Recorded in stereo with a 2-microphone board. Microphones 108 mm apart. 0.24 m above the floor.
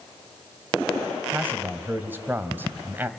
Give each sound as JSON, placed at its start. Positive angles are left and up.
{"t": 1.3, "sound": "a man speaking", "side_deg": -20, "distance_m": 1.6}